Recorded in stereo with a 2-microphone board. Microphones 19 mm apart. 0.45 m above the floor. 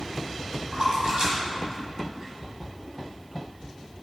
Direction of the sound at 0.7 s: 55° right (ahead or behind).